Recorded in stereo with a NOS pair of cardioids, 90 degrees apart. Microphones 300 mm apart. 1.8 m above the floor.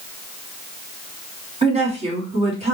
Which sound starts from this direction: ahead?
A woman speaking, at 1.6 s.